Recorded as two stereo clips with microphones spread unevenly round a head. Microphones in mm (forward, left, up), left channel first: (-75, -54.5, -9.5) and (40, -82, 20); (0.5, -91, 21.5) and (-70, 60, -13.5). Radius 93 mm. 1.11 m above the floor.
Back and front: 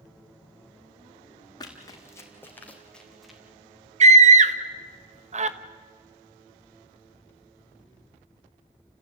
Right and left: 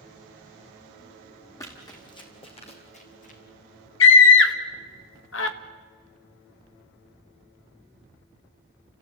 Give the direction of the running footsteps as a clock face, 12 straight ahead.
4 o'clock.